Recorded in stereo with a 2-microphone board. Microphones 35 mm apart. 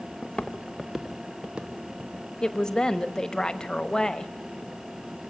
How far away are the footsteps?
About 1.1 m.